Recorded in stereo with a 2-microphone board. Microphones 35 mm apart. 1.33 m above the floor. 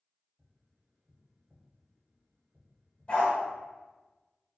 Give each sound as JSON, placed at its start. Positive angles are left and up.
{"t": 0.4, "sound": "tapping", "side_deg": -50, "distance_m": 1.8}
{"t": 3.1, "sound": "a dog barking", "side_deg": 35, "distance_m": 1.4}